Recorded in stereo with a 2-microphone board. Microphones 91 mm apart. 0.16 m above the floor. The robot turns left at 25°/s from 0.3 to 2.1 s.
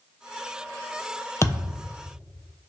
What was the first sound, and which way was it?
A thud, 30° left (ahead or behind).